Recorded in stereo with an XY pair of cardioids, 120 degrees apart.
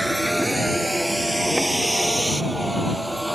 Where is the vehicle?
Straight ahead.